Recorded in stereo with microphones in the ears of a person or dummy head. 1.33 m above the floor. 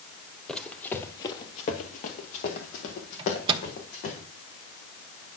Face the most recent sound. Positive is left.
turn(degrees=-30)  # may be behind; listen again after turning